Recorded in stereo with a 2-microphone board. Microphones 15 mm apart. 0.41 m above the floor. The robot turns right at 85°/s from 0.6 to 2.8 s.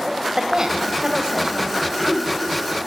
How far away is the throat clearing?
About 0.8 m.